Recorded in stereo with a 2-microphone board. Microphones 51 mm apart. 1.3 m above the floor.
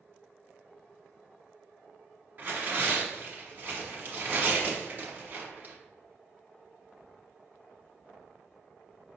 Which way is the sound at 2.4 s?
40° right (ahead or behind).